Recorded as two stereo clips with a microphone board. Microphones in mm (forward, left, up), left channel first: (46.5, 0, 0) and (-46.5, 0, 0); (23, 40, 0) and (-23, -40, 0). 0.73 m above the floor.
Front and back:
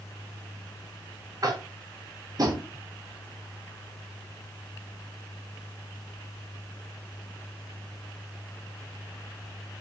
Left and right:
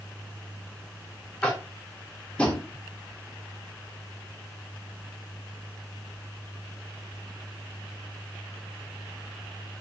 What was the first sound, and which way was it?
Tapping, 135° left.